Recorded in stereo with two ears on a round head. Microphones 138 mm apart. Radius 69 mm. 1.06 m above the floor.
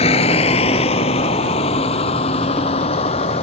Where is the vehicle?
40° left (ahead or behind).